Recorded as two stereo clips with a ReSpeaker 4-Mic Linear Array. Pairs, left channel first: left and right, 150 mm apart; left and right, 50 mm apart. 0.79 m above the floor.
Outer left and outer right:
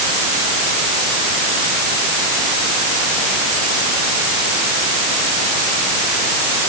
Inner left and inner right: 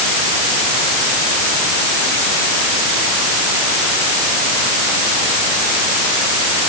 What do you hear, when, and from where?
Only background noise.